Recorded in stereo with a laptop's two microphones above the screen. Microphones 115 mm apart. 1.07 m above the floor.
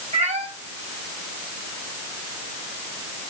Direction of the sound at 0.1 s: 70° right (ahead or behind).